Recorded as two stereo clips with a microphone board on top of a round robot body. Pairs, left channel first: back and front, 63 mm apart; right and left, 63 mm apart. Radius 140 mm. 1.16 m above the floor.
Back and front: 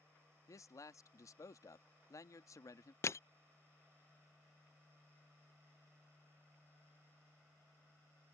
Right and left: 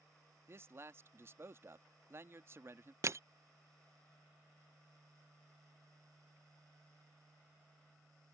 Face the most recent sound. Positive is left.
turn(degrees=135)